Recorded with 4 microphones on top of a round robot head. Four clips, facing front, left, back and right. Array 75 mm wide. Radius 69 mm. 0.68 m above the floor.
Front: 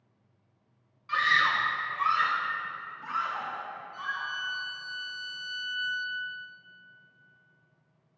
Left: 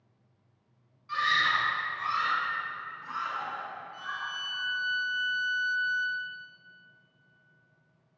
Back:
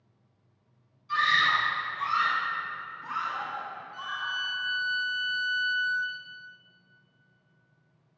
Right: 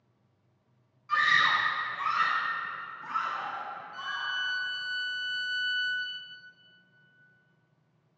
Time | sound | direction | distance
1.1 | a scream | 15° right | 2 m
3.9 | a violin | 80° right | 1.3 m